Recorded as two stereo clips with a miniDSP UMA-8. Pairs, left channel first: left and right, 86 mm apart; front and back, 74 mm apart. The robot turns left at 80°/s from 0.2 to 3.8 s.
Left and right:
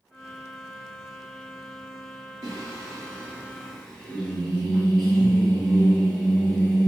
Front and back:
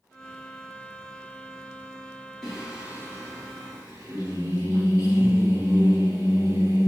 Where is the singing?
80° right, 1.7 m; by 6.9 s 170° left, 1.7 m.